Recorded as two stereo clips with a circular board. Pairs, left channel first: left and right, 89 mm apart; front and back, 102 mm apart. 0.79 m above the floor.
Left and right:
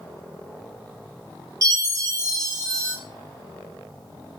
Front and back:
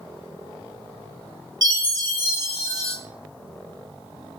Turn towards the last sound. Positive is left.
turn(degrees=-135)